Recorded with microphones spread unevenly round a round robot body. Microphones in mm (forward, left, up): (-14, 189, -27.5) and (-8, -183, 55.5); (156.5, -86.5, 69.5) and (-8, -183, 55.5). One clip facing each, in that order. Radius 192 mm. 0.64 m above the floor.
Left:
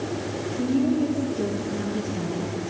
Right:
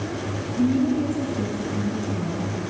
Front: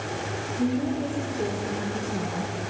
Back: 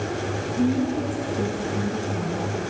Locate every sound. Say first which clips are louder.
0.6 s a woman speaking: right 2 dB, back 3 dB; 125° right, 6.5 m; by 2.5 s 145° right, 6.5 m